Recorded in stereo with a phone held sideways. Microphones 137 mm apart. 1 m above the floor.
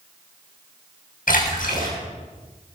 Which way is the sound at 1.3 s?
85° left.